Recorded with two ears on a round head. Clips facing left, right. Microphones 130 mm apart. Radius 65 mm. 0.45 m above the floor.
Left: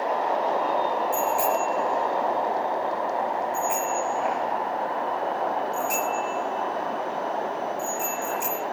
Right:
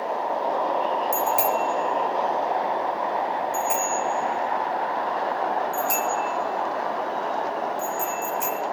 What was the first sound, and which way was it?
A bicycle bell, 65° right (ahead or behind).